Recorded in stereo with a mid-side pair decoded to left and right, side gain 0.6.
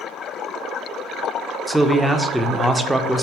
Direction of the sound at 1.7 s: 5° right.